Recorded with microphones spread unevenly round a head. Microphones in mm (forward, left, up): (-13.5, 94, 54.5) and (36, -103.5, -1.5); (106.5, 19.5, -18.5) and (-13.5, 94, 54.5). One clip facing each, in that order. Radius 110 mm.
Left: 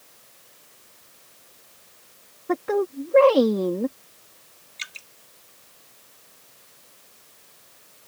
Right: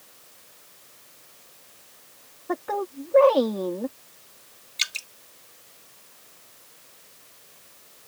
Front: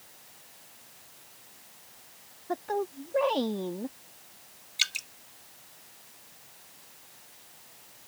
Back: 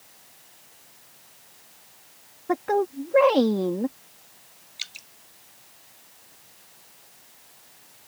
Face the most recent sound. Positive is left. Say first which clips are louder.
# right 4 dB, front 9 dB
turn(degrees=-45)